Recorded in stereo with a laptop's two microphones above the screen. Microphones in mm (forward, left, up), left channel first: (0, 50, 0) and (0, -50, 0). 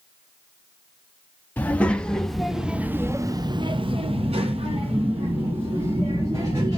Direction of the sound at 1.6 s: 15° left (ahead or behind).